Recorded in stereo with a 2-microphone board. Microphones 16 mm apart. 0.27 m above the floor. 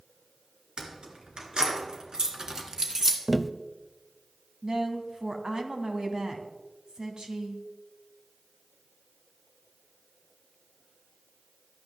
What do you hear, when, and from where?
0.8 s keys jangling: 65° right (ahead or behind), 3 m; by 3.2 s 25° right (ahead or behind), 2.0 m
3.3 s tapping: centre (ahead or behind), 0.6 m
4.6 s a woman speaking: 50° right (ahead or behind), 2.5 m